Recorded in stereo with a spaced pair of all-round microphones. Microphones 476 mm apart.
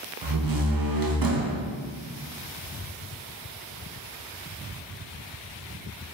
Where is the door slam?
45° right (ahead or behind), 0.6 m.